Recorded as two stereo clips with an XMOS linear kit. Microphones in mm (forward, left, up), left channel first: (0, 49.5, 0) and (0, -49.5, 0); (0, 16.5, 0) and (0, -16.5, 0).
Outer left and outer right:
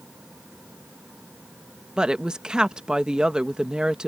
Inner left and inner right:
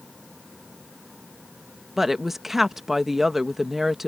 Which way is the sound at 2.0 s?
10° right (ahead or behind).